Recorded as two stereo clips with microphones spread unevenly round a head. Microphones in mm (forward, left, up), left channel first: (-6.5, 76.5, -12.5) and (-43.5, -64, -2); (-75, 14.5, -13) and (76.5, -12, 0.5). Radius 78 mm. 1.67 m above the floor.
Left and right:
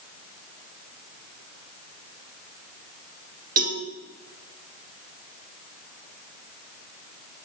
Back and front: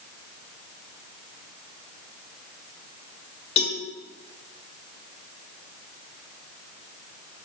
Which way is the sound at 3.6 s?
135° right.